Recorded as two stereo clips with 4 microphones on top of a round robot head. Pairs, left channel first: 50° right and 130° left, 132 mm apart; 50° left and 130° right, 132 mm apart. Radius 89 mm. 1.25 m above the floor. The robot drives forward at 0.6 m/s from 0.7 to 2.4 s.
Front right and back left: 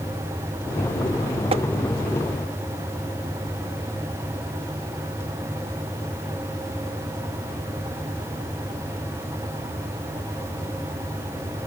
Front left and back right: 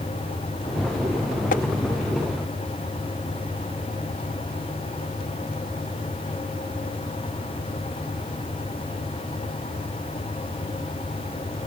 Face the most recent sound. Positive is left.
turn(degrees=110)